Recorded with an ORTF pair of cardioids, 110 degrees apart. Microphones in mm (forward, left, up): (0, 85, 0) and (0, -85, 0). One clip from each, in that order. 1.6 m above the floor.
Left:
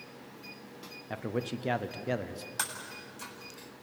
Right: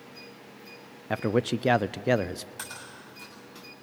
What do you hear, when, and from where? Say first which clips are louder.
1.1 s a man speaking: right 9 dB; 40° right, 0.5 m
2.6 s breaking glass: left 3 dB; 45° left, 7 m